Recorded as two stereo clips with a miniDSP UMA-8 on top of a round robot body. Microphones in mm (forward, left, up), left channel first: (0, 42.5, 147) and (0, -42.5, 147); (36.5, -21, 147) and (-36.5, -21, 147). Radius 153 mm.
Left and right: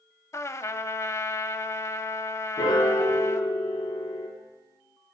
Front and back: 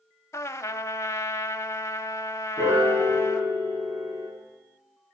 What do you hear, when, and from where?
0.3 s a trumpet: 45° left, 0.8 m
2.6 s a piano: 125° left, 1.9 m